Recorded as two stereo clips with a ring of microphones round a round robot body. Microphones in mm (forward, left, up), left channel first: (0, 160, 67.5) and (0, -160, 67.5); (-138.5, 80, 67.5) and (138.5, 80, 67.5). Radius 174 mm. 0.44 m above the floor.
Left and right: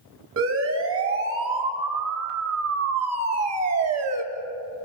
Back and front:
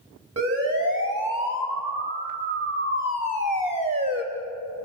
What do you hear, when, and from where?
0.4 s a siren: 45° right, 4.5 m; by 4.2 s 70° right, 3 m